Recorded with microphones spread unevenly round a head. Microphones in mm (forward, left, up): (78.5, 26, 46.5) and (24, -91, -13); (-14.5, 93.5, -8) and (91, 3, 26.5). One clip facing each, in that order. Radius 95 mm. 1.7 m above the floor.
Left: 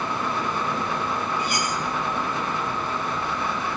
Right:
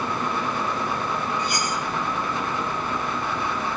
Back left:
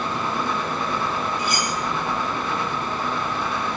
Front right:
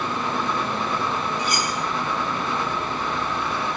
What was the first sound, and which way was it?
Cutlery clinking, 165° left.